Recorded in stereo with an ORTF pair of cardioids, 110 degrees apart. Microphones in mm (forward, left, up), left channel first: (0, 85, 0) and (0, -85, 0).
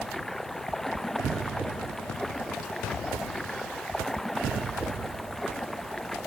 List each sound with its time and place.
0.0 s running water: straight ahead